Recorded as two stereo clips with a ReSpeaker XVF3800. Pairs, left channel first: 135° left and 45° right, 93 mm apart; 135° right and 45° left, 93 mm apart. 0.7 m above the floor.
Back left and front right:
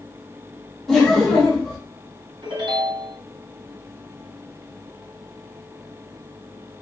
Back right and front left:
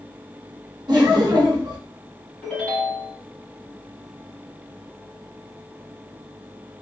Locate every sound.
0.9 s laughter: 50° left, 1.0 m
2.4 s a ringtone: 60° right, 2.0 m